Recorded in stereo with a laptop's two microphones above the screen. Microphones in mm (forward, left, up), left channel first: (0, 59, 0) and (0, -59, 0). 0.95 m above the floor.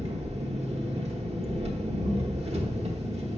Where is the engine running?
60° right (ahead or behind), 0.9 m.